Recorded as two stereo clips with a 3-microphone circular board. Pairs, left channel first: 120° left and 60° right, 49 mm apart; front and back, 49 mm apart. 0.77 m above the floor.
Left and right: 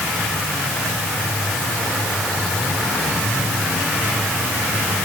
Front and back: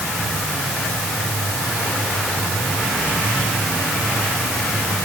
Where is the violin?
No violin in this recording.